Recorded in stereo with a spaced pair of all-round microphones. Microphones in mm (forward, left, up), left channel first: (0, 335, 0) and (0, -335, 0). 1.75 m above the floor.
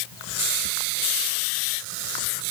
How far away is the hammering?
No hammering in this recording.